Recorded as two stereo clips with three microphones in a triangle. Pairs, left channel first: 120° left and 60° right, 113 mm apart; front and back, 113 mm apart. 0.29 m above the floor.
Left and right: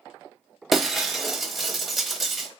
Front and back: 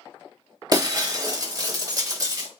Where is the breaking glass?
150° right, 0.8 m.